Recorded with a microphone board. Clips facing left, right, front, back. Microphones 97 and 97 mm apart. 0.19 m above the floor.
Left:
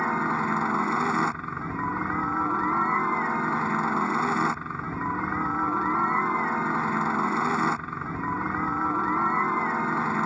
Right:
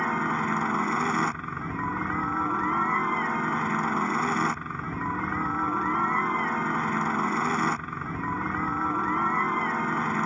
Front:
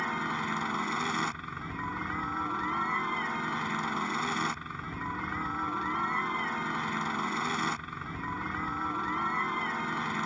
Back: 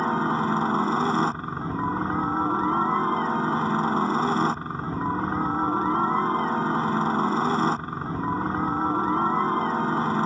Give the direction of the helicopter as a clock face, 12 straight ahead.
6 o'clock.